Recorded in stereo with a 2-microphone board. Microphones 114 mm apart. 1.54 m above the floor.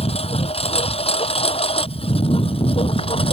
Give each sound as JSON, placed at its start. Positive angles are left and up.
{"t": 0.0, "sound": "a lawn mower", "side_deg": 60}